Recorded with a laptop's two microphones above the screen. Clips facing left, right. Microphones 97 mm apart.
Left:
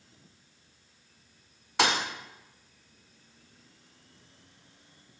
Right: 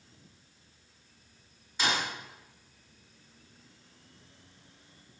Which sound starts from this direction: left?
A thud, at 1.8 s.